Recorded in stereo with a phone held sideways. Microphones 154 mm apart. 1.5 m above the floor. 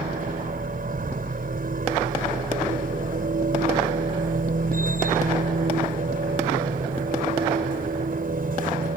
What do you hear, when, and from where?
0.0 s a machine running: 65° right (ahead or behind)